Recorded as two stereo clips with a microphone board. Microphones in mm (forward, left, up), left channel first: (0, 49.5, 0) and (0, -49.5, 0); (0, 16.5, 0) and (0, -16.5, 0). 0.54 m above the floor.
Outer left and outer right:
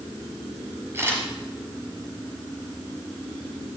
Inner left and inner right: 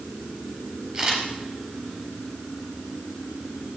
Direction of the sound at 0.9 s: 25° right (ahead or behind).